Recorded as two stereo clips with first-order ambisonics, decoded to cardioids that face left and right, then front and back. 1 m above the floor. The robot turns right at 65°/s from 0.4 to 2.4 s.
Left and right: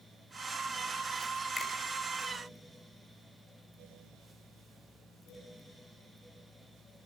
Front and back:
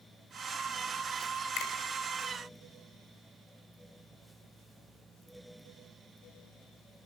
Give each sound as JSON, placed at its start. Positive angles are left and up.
{"t": 1.6, "sound": "a finger snap", "azimuth_deg": 10, "distance_m": 5.5}